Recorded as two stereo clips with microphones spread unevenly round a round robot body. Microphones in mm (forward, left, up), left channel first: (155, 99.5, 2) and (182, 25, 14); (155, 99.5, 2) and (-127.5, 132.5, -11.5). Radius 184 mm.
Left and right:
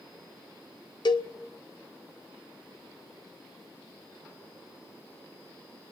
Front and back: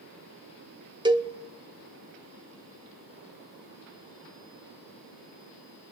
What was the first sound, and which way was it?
A cowbell, 100° left.